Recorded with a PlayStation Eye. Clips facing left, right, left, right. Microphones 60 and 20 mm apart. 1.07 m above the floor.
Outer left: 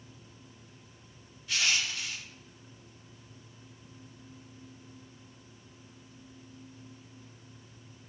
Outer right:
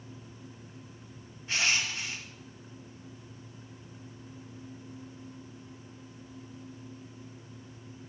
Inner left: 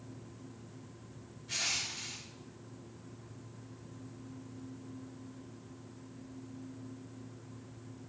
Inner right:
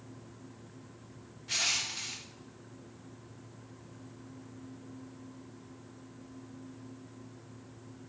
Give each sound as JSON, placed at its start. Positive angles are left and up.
{"t": 1.5, "sound": "crushing", "side_deg": -35, "distance_m": 0.6}